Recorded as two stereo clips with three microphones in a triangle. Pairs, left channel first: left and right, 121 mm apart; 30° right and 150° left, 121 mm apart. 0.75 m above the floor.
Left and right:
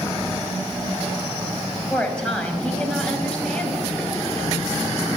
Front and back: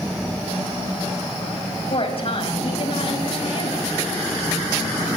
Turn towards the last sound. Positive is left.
turn(degrees=10)